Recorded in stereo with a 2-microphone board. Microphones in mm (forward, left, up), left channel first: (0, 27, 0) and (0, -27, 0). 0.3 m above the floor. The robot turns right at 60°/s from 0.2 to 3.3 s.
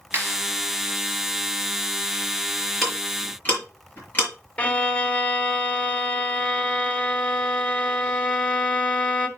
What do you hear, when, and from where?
0.1 s a clap: 45° right (ahead or behind), 5.5 m; by 0.3 s 55° right (ahead or behind), 5.5 m
2.8 s ticking: centre (ahead or behind), 5.5 m; by 4.3 s 30° left (ahead or behind), 5.5 m
4.6 s a violin: 25° left (ahead or behind), 1.3 m